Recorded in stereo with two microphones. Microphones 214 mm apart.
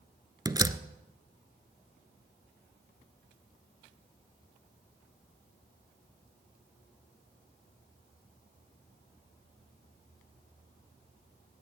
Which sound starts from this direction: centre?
A door slam, at 0.5 s.